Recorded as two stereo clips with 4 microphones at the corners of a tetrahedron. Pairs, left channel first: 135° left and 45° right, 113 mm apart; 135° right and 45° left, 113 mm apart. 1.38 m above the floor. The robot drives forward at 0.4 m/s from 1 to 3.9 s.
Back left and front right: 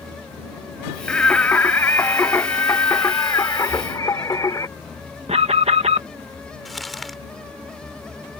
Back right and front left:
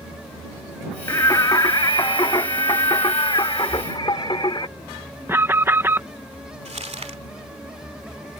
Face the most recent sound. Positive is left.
turn(degrees=45)